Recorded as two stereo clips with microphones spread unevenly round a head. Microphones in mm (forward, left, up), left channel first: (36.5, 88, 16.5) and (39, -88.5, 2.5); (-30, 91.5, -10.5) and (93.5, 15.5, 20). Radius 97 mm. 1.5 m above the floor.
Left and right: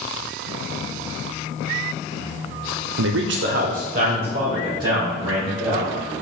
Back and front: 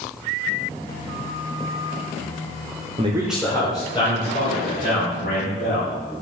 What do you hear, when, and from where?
3.0 s a man speaking: 95° right, 0.5 m; by 5.9 s 165° right, 2.5 m